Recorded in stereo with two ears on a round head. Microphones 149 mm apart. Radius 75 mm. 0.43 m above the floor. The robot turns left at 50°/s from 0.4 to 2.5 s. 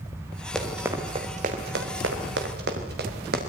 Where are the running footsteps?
5° left (ahead or behind), 4.5 m; by 3.4 s 70° right (ahead or behind), 6 m.